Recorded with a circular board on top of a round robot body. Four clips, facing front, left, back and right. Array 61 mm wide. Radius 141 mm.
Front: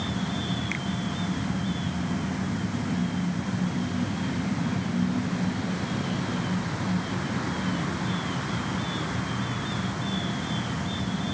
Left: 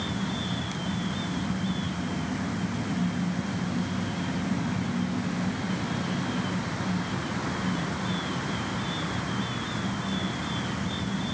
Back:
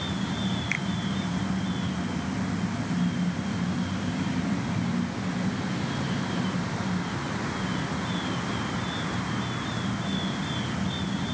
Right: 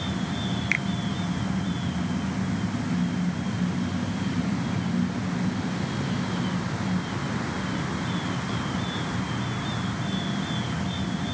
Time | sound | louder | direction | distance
0.7 | a finger snap | right 8 dB, back 2 dB | 100° right | ?